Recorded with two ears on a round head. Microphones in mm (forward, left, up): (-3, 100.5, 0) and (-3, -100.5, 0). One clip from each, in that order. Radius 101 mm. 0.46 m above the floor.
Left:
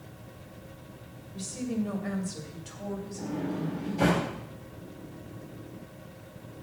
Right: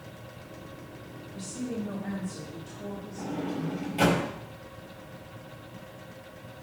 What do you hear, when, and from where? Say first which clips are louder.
1.3 s a woman speaking: left 2 dB; 15° left (ahead or behind), 2 m; by 4.2 s 55° left (ahead or behind), 4 m
3.2 s a sliding door: right 2 dB; 70° right (ahead or behind), 5.5 m